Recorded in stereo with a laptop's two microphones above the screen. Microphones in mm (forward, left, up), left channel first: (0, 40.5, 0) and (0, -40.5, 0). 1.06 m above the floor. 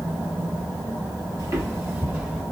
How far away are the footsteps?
About 1.4 m.